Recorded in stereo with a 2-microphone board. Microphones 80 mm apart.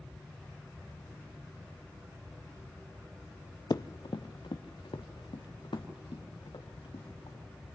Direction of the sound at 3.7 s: 50° left (ahead or behind).